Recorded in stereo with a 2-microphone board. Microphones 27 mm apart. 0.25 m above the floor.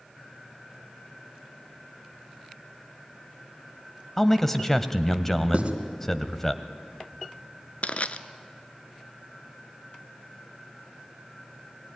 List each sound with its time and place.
4.2 s a man speaking: 15° left (ahead or behind), 1.1 m
5.5 s writing: 45° right (ahead or behind), 2.5 m
7.8 s crushing: 55° left (ahead or behind), 0.8 m